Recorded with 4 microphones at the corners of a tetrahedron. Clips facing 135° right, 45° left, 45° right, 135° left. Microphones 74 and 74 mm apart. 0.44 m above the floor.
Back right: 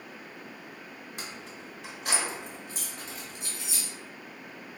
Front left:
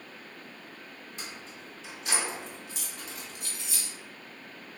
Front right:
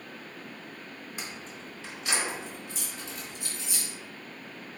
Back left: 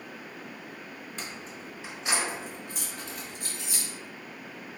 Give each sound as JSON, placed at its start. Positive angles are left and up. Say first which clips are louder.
{"t": 1.2, "sound": "keys jangling", "louder": "back right 1 dB, back left 1 dB", "azimuth_deg": -125, "distance_m": 0.9}